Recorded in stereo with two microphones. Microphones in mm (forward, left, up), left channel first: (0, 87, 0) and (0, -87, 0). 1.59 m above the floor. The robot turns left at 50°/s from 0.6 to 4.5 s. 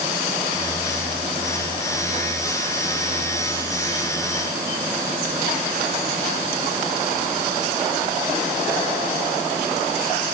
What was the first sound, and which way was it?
Only background noise.